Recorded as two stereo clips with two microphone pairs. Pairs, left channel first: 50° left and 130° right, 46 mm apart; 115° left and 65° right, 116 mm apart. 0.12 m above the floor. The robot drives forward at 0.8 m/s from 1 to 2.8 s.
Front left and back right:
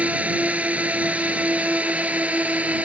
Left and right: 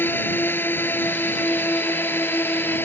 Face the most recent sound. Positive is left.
turn(degrees=180)